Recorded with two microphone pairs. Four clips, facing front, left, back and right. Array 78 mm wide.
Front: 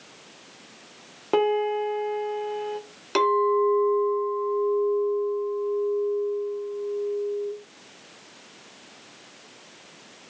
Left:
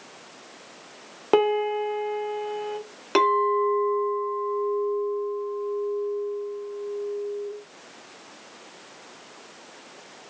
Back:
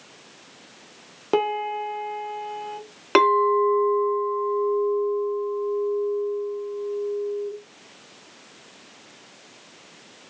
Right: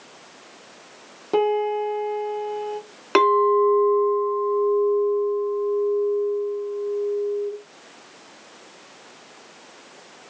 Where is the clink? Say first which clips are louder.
Right 4 dB, back 3 dB; 140° right, 1.5 m.